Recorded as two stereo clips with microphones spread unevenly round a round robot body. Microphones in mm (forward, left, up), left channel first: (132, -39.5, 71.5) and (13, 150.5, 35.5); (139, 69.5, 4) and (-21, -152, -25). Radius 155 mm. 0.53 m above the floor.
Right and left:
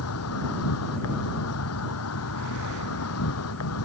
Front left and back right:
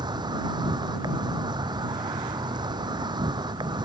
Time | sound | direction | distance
0.0 | an insect | 50° right | ?